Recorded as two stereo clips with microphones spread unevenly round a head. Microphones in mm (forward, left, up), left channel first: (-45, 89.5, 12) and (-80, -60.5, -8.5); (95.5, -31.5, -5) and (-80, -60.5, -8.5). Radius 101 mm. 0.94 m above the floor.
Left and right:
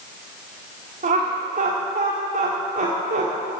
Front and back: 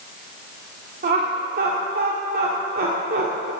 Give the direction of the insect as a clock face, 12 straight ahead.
No insect in this recording.